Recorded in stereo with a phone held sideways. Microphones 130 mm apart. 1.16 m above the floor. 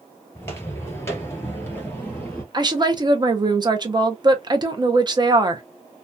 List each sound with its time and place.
0.3 s footsteps: 20° left (ahead or behind), 1.3 m; by 2.4 s 15° left (ahead or behind), 1.6 m
2.5 s a woman speaking: 35° right (ahead or behind), 0.6 m